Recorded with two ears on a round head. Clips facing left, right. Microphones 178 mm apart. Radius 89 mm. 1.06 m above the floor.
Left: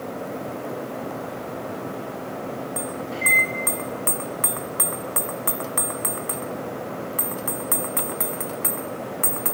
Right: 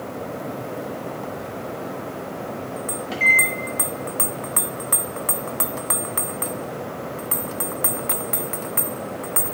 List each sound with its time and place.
3.1 s a microwave: 90° right, 2.0 m